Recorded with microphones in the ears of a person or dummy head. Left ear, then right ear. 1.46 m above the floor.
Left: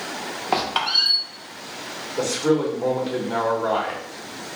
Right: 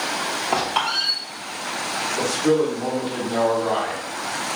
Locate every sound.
0.5 s a squeak: 10° left (ahead or behind), 0.8 m
2.2 s a man speaking: 65° left (ahead or behind), 1.4 m